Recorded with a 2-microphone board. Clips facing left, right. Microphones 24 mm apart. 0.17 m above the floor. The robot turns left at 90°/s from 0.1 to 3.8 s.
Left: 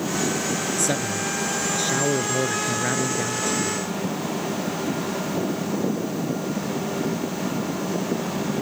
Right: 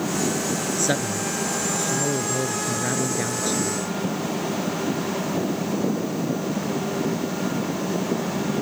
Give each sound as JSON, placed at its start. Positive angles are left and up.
{"t": 0.8, "sound": "a man speaking", "azimuth_deg": -145}